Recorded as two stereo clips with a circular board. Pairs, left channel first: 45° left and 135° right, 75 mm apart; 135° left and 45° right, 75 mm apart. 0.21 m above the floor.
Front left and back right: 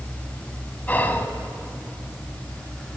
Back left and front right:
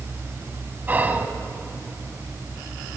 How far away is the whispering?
About 1.1 m.